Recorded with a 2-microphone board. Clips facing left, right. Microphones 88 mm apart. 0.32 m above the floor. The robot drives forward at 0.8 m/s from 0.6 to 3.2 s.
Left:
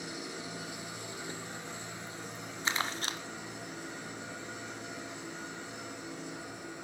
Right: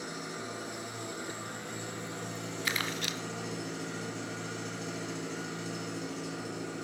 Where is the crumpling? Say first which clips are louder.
Left 2 dB; 25° left (ahead or behind), 1.1 m; by 3.2 s 40° left (ahead or behind), 0.7 m.